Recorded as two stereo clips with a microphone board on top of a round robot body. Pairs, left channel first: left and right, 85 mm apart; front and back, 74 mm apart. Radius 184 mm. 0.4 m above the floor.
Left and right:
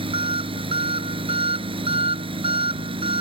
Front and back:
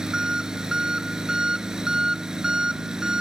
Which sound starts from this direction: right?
An engine running, at 0.0 s.